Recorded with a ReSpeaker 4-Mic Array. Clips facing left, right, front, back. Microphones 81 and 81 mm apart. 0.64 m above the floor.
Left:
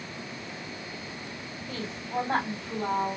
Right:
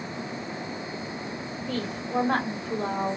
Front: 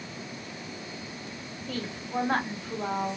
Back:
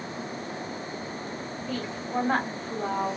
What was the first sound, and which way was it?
A woman speaking, 115° right.